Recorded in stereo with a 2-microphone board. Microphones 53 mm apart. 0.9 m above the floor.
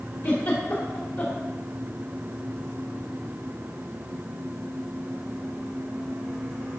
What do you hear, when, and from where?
0.2 s a giggle: 45° left (ahead or behind), 1.6 m